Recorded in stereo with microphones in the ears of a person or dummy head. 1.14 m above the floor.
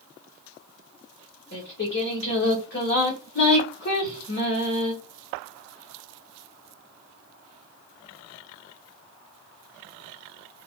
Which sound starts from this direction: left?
Singing, at 1.5 s.